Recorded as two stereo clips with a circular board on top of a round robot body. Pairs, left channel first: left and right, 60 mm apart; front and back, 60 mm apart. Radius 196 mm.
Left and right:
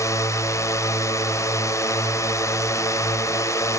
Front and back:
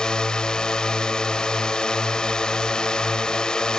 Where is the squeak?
I don't hear a squeak.